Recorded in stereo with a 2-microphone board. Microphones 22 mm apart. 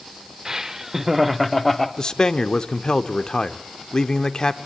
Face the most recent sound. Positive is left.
turn(degrees=35)  # may be behind; listen again after turning